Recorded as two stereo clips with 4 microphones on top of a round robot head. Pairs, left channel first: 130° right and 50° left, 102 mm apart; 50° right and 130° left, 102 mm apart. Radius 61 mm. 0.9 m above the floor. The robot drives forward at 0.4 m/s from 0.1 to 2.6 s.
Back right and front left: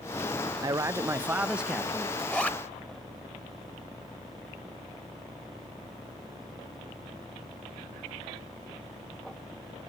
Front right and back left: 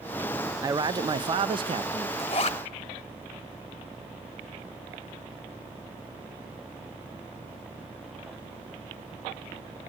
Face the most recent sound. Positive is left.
turn(degrees=-60)